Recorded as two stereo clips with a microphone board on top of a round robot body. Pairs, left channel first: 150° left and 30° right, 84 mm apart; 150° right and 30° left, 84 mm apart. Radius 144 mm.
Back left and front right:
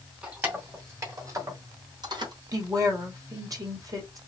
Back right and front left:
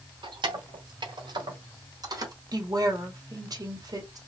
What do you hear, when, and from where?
0.2 s keys jangling: 40° left, 1.9 m; by 2.3 s 10° right, 1.9 m
2.5 s a woman speaking: straight ahead, 2 m